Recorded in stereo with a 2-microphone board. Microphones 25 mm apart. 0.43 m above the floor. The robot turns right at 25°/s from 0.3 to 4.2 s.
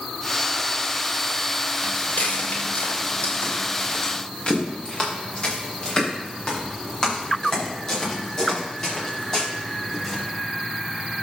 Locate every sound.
1.8 s footsteps: 60° left (ahead or behind), 5 m; by 10.2 s 20° left (ahead or behind), 10.5 m